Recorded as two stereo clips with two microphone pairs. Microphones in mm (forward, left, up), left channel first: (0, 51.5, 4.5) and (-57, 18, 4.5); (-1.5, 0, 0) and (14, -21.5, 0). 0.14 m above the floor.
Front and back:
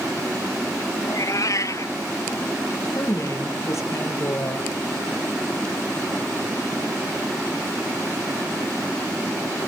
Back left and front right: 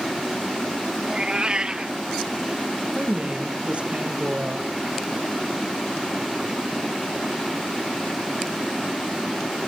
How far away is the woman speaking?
About 4.5 m.